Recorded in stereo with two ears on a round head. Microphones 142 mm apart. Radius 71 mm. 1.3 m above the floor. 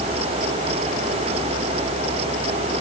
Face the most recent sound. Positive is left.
No sound to turn to.